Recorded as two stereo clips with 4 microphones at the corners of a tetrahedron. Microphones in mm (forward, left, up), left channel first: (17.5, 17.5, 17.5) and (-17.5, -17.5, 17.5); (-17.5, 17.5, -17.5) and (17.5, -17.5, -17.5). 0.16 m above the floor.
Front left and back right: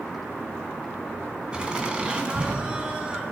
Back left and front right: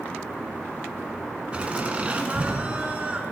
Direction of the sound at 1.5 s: 85° right.